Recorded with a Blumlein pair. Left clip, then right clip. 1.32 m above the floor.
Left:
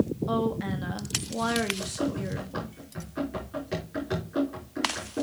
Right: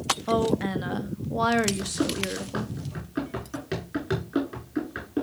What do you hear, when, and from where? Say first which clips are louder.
0.3 s a woman speaking: right 4 dB; 15° right, 1.0 m
1.8 s running footsteps: right 3 dB; 70° right, 6.5 m